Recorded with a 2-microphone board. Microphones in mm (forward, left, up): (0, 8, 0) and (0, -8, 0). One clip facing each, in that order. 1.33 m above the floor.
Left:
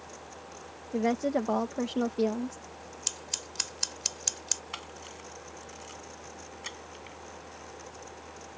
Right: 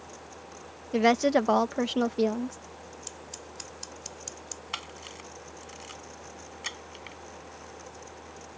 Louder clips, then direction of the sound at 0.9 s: Right 6 dB; 80° right.